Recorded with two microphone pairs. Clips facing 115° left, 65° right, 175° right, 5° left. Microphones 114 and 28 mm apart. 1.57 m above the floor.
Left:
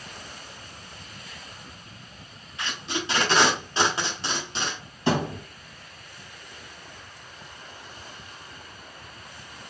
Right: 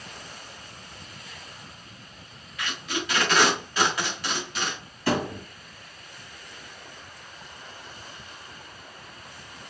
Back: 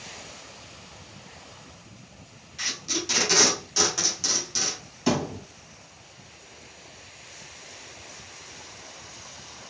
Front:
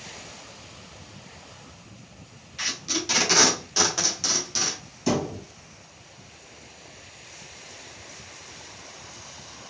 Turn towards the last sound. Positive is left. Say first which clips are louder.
# left 1 dB, even
turn(degrees=155)